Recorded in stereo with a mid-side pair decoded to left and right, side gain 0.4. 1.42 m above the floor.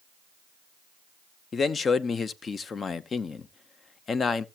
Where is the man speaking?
50° left, 0.8 m.